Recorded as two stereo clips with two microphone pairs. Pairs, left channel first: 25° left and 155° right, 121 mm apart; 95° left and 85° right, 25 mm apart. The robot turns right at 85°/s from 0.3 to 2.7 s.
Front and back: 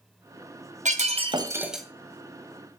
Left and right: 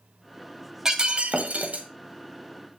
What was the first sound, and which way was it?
Breaking glass, 150° right.